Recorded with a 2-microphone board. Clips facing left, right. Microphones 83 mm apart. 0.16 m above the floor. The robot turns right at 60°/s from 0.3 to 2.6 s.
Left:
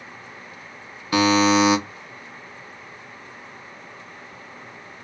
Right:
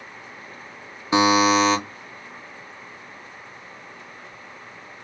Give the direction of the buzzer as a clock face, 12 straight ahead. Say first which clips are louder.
Even; 1 o'clock.